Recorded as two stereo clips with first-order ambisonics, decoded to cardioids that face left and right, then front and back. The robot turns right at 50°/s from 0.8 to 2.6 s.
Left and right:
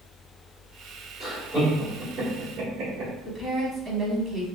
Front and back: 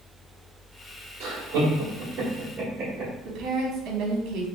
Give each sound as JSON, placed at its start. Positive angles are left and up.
{"t": 1.2, "sound": "laughter", "azimuth_deg": -175, "distance_m": 1.2}
{"t": 3.2, "sound": "a woman speaking", "azimuth_deg": -155, "distance_m": 0.8}